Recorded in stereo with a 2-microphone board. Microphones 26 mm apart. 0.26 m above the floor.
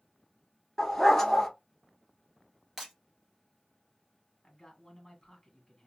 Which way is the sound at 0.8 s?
15° left (ahead or behind).